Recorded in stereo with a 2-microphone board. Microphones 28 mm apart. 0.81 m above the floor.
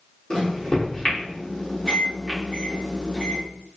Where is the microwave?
30° left (ahead or behind), 1.7 m.